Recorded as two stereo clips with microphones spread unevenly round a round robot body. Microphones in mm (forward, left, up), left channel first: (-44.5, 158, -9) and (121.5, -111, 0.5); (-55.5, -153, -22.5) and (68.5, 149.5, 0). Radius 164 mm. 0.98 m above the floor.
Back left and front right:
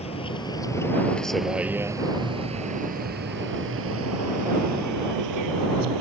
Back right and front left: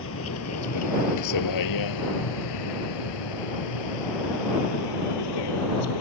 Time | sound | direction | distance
0.0 | a vehicle | 165° right | ?